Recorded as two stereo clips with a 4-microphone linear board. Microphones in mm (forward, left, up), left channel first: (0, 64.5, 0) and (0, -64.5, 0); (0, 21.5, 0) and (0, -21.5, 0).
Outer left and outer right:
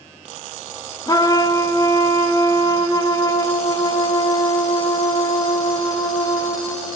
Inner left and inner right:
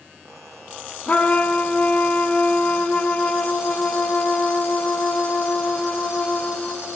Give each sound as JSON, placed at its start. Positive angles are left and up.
{"t": 1.1, "sound": "a trumpet", "side_deg": 35, "distance_m": 0.6}